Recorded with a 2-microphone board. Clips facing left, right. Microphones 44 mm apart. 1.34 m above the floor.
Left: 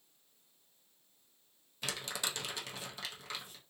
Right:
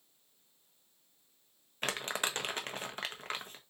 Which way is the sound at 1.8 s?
45° right (ahead or behind).